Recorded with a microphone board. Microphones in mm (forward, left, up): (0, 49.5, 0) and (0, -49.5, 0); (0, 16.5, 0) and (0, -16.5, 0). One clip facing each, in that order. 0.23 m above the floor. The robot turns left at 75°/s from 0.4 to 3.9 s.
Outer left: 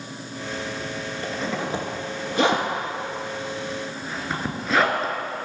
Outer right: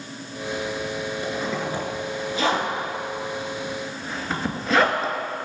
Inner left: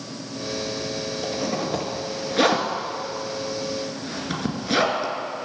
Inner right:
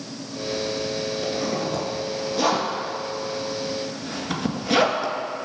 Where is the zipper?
20° right (ahead or behind), 2 m; by 5.1 s centre (ahead or behind), 2 m.